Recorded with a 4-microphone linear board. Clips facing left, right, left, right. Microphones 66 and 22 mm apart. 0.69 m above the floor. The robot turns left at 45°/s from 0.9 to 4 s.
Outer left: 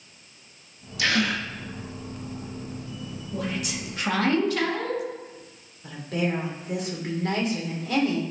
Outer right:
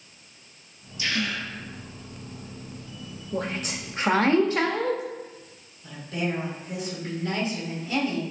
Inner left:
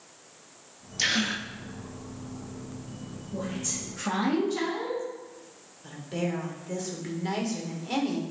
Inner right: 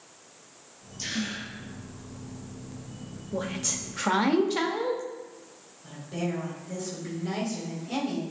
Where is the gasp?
70° left (ahead or behind), 0.6 m; by 1.5 s 65° left (ahead or behind), 0.6 m.